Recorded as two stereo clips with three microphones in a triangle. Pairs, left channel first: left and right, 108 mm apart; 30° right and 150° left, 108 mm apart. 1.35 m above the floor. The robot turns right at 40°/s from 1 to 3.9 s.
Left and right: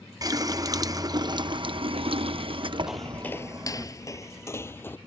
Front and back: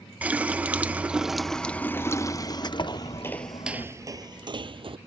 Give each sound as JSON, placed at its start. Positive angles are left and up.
{"t": 0.2, "sound": "a running tap", "azimuth_deg": -135}
{"t": 2.9, "sound": "footsteps", "azimuth_deg": -5}